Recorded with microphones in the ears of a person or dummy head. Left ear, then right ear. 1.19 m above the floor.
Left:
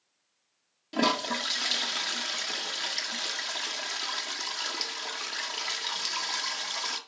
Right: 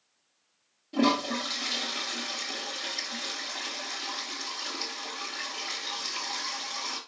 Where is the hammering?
No hammering in this recording.